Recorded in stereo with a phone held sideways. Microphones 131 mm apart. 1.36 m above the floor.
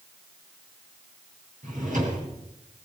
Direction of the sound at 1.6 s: 80° right.